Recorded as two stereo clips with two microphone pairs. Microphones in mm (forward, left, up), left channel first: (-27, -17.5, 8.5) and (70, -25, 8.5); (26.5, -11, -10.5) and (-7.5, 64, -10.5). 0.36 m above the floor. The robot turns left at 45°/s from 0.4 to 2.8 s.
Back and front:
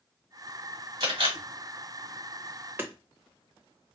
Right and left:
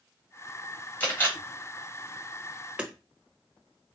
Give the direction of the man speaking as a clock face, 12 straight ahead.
I don't hear a man speaking.